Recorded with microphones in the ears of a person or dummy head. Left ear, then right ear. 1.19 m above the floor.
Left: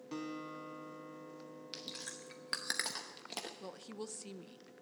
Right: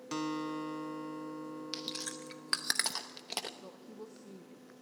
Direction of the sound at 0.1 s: 40° right (ahead or behind).